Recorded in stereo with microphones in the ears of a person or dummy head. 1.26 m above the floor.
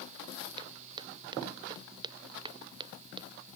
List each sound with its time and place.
0.6 s footsteps: 20° right (ahead or behind); by 3.3 s 25° right (ahead or behind)